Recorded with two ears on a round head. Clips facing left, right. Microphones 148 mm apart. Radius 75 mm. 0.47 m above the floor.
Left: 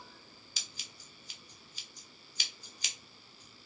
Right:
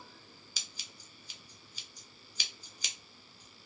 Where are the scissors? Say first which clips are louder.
Even; 80° right, 1.1 m.